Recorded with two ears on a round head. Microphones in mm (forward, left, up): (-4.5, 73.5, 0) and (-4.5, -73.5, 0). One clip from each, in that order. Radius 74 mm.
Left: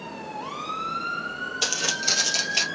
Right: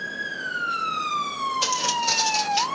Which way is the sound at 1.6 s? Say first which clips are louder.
Even; centre (ahead or behind).